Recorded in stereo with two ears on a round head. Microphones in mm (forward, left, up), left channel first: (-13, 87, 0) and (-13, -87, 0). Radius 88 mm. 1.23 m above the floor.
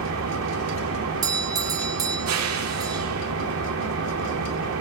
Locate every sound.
0.0 s an engine running: 80° right, 3 m
1.2 s a doorbell: 20° right (ahead or behind), 1.0 m